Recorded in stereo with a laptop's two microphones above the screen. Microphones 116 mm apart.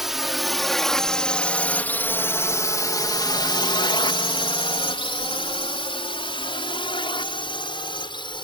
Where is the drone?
5° right (ahead or behind); by 8.4 s 45° left (ahead or behind).